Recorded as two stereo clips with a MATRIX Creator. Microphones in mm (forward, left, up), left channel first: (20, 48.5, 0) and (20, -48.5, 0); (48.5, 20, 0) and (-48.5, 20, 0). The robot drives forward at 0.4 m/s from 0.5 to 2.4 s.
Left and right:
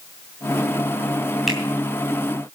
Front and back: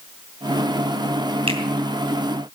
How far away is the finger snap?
About 2.5 m.